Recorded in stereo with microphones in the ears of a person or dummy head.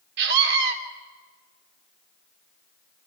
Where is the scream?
65° right (ahead or behind), 3.5 m.